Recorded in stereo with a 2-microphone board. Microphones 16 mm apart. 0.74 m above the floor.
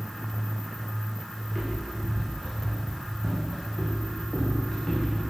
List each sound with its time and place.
1.4 s footsteps: 5° right (ahead or behind), 4.5 m; by 5.2 s 30° left (ahead or behind), 4.5 m